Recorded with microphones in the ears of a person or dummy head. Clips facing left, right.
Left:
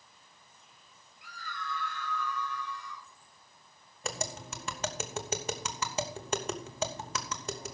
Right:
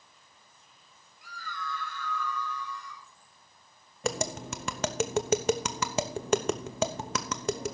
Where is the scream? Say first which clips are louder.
Right 2 dB; 85° right, 8 m; by 3.1 s 80° right, 9 m.